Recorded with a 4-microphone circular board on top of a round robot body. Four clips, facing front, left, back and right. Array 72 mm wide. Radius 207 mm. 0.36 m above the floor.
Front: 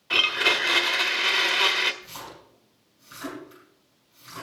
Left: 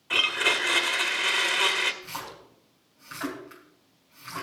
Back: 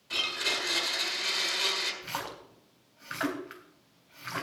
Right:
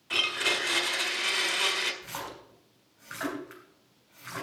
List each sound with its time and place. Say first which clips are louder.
0.1 s a blender: left 4 dB, front 10 dB; 25° left, 1.7 m
2.0 s a splash: left 1 dB, back 4 dB; 160° right, 3.5 m